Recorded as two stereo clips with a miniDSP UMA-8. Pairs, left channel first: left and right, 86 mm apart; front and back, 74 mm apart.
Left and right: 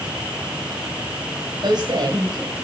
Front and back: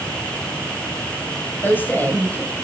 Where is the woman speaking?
65° right, 3 m.